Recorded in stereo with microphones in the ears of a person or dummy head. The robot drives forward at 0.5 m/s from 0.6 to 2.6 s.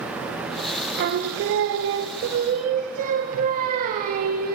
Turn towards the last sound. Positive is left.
turn(degrees=-50)  # may be behind; listen again after turning